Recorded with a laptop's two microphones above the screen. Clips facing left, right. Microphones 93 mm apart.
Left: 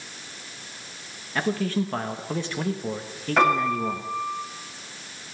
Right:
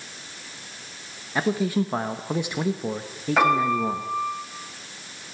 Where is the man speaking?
15° right (ahead or behind), 1.0 m.